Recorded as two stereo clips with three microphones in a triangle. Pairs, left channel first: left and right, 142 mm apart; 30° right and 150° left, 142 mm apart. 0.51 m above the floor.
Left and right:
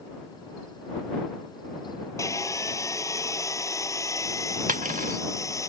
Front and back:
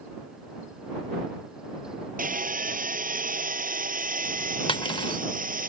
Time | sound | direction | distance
2.2 | sawing | 155° left | ?
4.7 | cutlery clinking | 80° right | ?